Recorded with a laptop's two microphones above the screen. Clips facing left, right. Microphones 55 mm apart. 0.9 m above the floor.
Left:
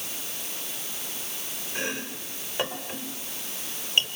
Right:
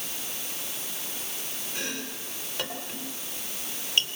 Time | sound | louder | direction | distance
1.8 | chopping | left 4 dB | 20° left (ahead or behind) | 3 m